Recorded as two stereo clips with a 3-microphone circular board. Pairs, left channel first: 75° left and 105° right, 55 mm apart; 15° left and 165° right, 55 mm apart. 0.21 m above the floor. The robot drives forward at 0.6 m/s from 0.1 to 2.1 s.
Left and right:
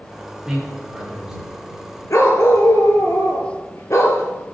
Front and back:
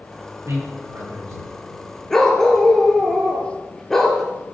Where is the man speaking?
175° left, 5.5 m.